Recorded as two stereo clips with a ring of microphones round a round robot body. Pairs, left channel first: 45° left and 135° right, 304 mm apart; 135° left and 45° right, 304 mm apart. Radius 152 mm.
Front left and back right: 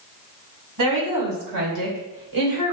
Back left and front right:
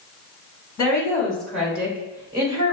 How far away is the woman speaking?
About 2 m.